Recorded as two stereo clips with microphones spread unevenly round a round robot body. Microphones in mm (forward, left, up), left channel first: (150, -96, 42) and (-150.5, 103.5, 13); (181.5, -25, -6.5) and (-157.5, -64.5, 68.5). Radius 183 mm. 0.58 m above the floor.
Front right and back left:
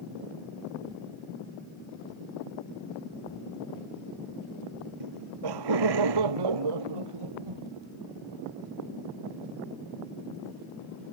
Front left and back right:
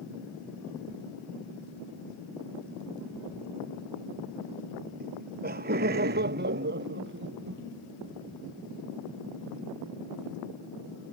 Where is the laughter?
120° left; by 7.6 s 125° left.